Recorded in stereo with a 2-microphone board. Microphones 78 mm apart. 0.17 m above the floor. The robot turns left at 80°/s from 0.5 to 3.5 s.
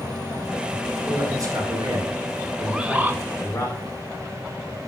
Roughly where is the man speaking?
Ahead right.